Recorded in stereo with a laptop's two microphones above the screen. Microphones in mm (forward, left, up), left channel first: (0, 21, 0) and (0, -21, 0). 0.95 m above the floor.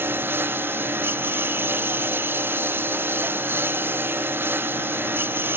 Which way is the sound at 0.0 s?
60° right (ahead or behind).